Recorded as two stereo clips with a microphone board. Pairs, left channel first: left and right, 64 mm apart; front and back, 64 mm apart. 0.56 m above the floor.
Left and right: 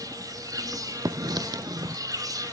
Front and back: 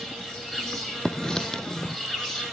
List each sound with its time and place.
0.0 s an insect: 80° right, 3.5 m
1.1 s writing: 80° right, 0.6 m